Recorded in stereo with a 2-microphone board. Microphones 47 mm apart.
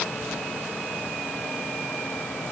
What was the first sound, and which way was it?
Only background noise.